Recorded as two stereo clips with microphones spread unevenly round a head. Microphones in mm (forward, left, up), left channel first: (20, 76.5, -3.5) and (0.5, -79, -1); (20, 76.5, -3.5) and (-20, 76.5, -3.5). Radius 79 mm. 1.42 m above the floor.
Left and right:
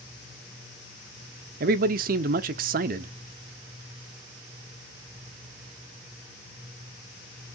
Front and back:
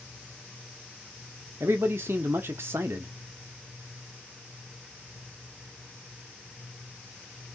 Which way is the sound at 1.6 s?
135° right.